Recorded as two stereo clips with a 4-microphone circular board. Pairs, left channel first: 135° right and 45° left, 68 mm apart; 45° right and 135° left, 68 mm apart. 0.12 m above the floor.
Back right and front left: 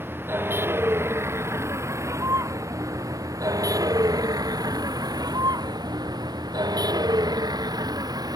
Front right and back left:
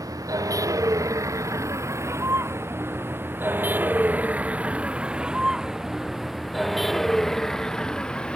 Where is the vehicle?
105° left; by 8.4 s 30° left.